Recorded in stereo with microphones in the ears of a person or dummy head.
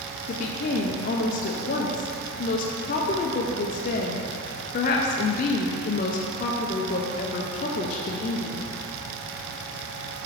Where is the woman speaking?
40° left (ahead or behind), 0.5 m.